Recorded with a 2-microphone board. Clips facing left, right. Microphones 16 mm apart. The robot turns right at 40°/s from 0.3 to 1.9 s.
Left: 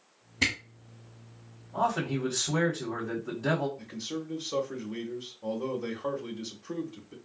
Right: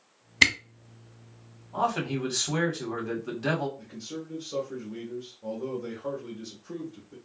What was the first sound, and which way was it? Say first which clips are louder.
A camera shutter: right 7 dB; 50° right (ahead or behind).